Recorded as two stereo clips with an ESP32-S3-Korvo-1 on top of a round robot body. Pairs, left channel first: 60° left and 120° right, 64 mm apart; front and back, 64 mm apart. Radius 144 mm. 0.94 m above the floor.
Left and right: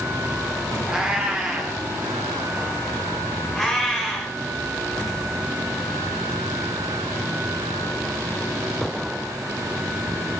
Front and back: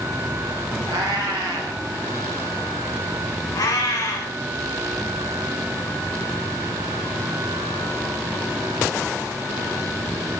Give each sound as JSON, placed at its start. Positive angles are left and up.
{"t": 0.9, "sound": "a cat meowing", "azimuth_deg": 160, "distance_m": 1.1}
{"t": 3.5, "sound": "a cat meowing", "azimuth_deg": -20, "distance_m": 1.2}